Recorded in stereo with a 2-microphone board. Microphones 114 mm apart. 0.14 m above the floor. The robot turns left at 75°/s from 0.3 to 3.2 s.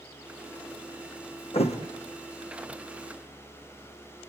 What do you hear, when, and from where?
1.5 s a thud: 55° left (ahead or behind), 3 m; by 1.8 s 75° left (ahead or behind), 3 m